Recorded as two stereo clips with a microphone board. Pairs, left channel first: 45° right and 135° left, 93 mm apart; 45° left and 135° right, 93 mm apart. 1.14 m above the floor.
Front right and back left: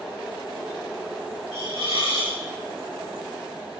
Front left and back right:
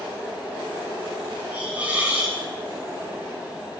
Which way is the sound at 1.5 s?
160° left.